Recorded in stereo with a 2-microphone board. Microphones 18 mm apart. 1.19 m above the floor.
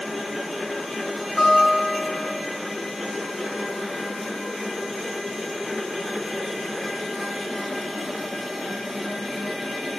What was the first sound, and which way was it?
A guitar, 30° left (ahead or behind).